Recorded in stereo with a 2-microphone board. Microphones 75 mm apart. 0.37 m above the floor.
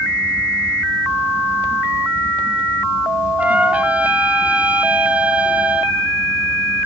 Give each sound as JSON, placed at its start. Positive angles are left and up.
{"t": 3.4, "sound": "a trumpet", "side_deg": -20, "distance_m": 2.0}